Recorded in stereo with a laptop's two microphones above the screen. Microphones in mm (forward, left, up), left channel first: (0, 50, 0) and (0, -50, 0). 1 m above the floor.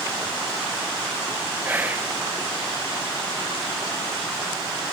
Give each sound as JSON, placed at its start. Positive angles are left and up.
{"t": 1.6, "sound": "whispering", "side_deg": -20, "distance_m": 0.5}